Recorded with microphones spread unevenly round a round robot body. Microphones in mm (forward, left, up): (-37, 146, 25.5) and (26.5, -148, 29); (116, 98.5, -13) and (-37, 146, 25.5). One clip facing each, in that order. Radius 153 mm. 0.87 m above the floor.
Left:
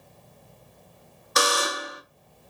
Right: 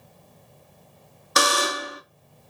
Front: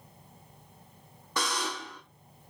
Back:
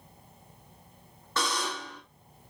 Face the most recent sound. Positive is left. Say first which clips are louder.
# right 1 dB, back 1 dB
turn(degrees=-105)